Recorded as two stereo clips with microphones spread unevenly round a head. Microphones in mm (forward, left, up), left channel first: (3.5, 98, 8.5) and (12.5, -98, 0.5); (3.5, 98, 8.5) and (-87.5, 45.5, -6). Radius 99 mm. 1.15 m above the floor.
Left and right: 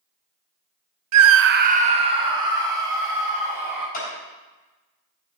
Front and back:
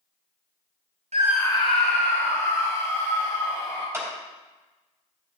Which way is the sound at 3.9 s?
140° left.